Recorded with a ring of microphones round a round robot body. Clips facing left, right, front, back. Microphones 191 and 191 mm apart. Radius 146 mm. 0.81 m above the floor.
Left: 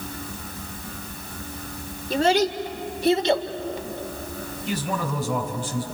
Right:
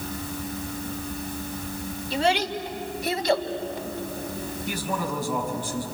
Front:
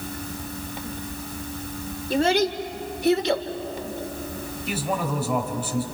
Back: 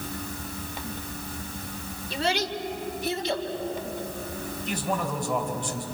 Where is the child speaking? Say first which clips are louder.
Left 4 dB, front 7 dB; 45° left, 2.5 m; by 3.5 s 20° left, 2 m.